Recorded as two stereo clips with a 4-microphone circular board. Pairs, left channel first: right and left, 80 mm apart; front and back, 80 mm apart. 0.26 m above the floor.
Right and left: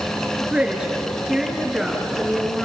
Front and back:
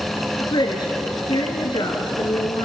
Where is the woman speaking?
15° left, 4 m; by 2.7 s 5° left, 5 m.